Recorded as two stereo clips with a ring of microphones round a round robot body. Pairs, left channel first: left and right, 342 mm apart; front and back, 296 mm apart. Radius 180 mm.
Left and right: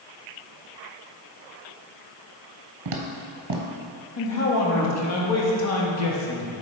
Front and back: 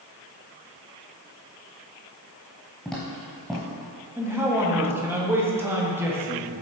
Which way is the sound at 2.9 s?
85° right.